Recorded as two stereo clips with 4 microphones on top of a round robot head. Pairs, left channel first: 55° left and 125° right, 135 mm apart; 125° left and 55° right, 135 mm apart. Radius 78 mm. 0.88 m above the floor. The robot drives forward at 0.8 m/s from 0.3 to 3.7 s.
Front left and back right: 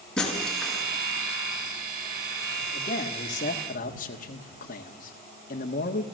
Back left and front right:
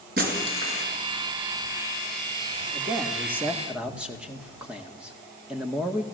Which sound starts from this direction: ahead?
A man speaking, at 2.7 s.